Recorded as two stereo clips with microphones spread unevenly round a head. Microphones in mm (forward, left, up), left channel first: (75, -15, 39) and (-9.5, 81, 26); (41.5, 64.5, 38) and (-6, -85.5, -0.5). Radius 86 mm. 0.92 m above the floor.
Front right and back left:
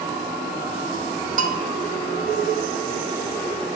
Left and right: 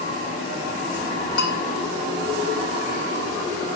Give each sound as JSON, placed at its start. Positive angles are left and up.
{"t": 1.4, "sound": "a bell", "azimuth_deg": 105, "distance_m": 1.4}